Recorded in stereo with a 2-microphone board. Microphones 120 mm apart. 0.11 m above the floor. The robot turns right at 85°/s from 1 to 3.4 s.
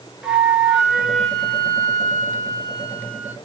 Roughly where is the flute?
Ahead.